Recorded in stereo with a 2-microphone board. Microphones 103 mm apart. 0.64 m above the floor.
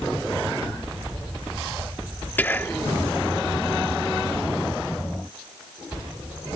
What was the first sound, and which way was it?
Whispering, 20° left (ahead or behind).